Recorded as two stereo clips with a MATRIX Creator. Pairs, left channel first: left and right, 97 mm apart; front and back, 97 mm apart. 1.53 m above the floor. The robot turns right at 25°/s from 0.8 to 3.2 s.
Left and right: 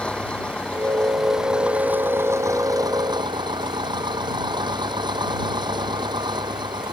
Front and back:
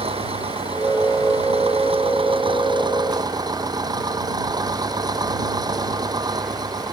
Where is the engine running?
170° left; by 6.9 s 130° right.